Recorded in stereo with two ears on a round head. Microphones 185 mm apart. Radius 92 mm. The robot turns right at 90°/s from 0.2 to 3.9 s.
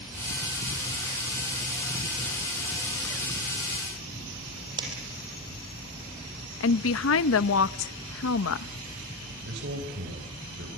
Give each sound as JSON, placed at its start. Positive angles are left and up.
{"t": 4.8, "sound": "a dropped coin", "side_deg": -20, "distance_m": 5.5}
{"t": 6.6, "sound": "a woman speaking", "side_deg": 70, "distance_m": 0.8}
{"t": 9.4, "sound": "a man speaking", "side_deg": -55, "distance_m": 3.5}